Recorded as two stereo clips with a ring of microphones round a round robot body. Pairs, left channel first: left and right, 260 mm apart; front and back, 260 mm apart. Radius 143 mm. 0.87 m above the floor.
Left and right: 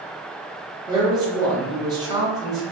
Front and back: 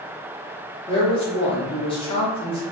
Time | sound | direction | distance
0.9 | a man speaking | 35° right | 0.8 m